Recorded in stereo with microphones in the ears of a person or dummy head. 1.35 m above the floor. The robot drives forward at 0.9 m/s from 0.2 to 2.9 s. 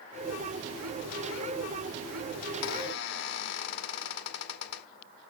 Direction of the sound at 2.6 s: 60° left (ahead or behind).